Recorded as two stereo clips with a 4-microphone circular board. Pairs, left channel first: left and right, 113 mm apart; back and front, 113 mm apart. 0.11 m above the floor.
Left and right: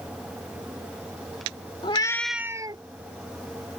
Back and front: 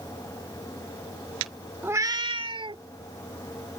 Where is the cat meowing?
70° left; by 2.8 s 45° right.